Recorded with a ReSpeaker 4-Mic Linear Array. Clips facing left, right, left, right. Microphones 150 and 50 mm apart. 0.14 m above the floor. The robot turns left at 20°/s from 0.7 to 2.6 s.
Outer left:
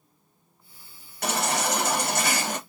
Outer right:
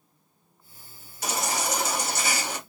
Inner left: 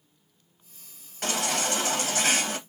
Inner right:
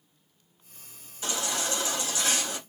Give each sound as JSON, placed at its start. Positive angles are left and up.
{"t": 1.2, "sound": "a baby crying", "side_deg": 60, "distance_m": 2.0}